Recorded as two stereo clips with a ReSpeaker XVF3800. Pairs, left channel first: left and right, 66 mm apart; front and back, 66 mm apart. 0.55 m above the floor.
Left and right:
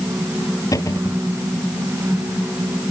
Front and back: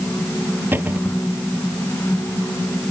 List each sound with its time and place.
0.7 s a cupboard door: 120° left